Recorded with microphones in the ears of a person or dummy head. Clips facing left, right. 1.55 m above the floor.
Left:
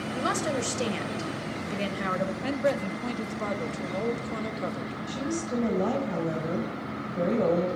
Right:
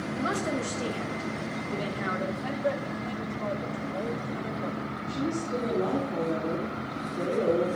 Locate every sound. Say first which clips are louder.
0.1 s a woman speaking: left 1 dB; 65° left (ahead or behind), 1.2 m
2.4 s a man speaking: left 5 dB; 75° left (ahead or behind), 0.9 m
5.1 s a woman speaking: right 1 dB; 80° left, 1.7 m